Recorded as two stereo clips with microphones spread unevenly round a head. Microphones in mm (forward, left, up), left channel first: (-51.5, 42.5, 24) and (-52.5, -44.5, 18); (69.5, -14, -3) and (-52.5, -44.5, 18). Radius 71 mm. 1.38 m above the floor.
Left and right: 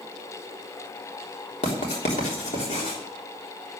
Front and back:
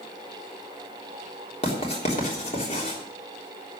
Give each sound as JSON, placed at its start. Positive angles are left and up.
{"t": 1.6, "sound": "writing", "azimuth_deg": 70, "distance_m": 3.5}